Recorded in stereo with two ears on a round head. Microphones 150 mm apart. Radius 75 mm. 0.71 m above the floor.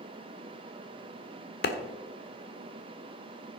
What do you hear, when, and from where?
1.6 s a clap: 65° left (ahead or behind), 1.4 m